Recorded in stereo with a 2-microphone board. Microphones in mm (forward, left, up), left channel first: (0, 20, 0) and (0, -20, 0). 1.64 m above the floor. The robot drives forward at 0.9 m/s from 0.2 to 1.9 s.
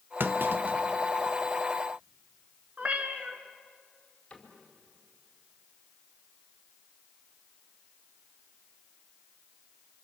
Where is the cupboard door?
25° left (ahead or behind), 4.5 m.